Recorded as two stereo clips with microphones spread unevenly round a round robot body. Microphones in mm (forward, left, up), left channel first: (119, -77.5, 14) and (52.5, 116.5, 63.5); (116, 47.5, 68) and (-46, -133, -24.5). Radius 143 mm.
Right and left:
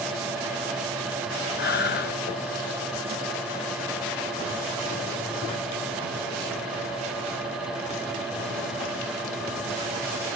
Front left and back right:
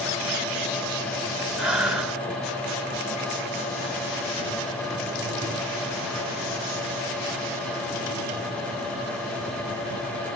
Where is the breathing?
55° right, 3 m.